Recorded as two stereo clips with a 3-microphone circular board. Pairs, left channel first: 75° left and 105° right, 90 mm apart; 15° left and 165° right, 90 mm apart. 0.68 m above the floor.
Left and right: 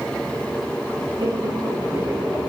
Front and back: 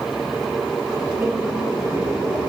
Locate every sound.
1.2 s laughter: 100° right, 1.0 m; by 2.5 s 170° left, 0.7 m